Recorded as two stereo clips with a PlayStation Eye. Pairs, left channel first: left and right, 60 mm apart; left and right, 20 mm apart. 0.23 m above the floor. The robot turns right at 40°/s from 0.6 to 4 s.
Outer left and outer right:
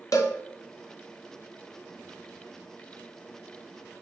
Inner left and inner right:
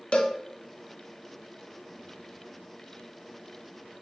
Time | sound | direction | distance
0.1 | a cowbell | 65° left (ahead or behind) | 1.0 m